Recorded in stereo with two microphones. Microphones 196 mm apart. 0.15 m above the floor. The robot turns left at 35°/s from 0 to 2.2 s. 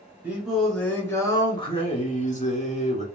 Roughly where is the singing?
Behind.